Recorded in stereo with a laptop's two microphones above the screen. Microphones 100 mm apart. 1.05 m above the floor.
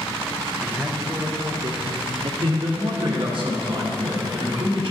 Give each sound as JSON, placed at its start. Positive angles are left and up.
{"t": 0.6, "sound": "a man speaking", "side_deg": -5, "distance_m": 0.7}
{"t": 2.4, "sound": "a man speaking", "side_deg": -50, "distance_m": 1.2}